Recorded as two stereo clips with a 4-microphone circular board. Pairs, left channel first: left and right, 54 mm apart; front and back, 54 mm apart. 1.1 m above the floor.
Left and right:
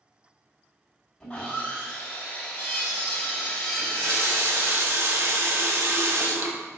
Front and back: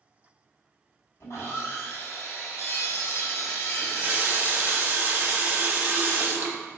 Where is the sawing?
15° left, 3 m.